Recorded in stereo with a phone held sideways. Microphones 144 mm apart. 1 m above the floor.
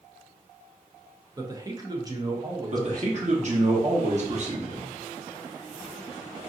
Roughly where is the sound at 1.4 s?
Right.